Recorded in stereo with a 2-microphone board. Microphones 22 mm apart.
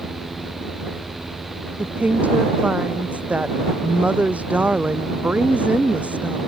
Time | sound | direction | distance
1.8 | a woman speaking | 70° right (ahead or behind) | ?